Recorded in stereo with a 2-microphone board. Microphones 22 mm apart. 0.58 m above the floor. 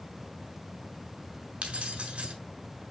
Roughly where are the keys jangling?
Right.